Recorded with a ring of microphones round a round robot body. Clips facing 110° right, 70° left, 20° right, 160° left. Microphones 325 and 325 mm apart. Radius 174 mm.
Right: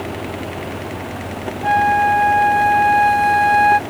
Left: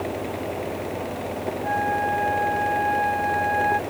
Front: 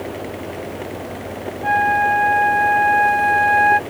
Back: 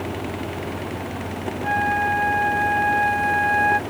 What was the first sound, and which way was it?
A flute, 115° right.